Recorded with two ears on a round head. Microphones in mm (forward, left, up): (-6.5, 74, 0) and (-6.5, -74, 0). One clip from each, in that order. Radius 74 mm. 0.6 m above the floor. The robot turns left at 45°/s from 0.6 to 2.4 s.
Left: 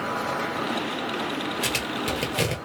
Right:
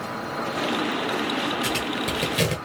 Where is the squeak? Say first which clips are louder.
Right 1 dB; 35° left (ahead or behind), 1.1 m; by 2.5 s centre (ahead or behind), 1.1 m.